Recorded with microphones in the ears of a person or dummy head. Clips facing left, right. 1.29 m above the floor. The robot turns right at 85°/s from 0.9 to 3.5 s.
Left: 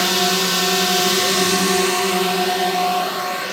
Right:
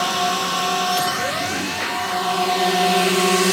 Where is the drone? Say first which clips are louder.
Left 2 dB; 35° left; by 3.5 s 105° right.